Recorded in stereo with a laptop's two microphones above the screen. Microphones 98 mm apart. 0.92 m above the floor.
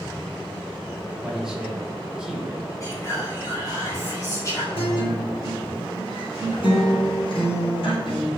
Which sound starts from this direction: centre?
A man speaking, at 1.2 s.